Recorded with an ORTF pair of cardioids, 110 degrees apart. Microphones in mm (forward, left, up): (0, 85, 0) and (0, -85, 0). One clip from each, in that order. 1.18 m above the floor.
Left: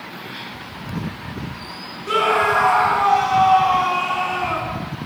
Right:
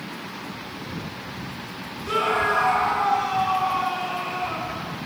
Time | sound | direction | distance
2.1 | a scream | 25° left | 1.8 m